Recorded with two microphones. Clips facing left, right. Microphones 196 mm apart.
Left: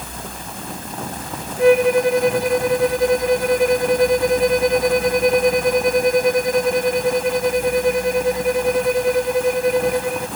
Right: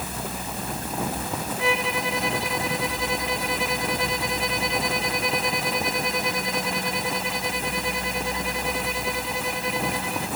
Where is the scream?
No scream in this recording.